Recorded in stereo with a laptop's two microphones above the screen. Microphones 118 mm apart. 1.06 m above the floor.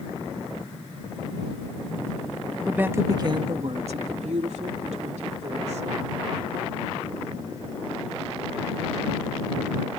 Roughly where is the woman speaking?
Centre.